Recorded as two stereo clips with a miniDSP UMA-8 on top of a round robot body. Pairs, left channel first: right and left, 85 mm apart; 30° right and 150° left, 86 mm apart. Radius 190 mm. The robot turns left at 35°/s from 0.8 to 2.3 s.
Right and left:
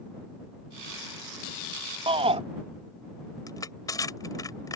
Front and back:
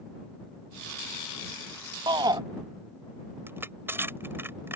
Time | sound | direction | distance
2.1 | a shout | 110° left | ?
3.5 | crushing | 145° right | ?